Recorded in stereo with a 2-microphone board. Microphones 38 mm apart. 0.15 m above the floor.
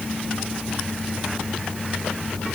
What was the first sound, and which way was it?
Only background noise.